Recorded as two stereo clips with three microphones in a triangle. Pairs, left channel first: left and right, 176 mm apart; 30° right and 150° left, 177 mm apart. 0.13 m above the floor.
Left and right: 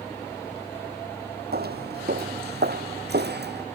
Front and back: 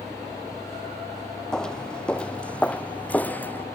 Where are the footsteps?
115° right; by 3.7 s 110° right.